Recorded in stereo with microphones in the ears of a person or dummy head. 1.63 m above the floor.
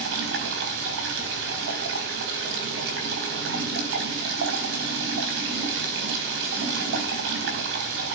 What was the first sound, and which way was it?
Running water, 65° right (ahead or behind).